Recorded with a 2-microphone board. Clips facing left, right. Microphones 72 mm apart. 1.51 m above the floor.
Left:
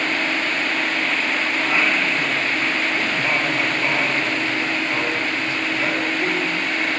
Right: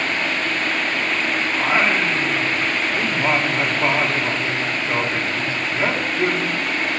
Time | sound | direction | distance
1.5 | singing | 30° right (ahead or behind) | 4 m